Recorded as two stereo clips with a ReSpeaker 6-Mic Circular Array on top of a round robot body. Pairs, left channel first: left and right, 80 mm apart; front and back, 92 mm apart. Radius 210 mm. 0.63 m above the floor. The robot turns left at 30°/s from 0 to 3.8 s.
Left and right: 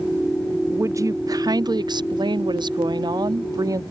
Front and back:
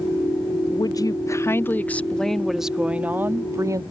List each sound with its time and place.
0.7 s a woman speaking: 35° right; by 3.8 s 130° right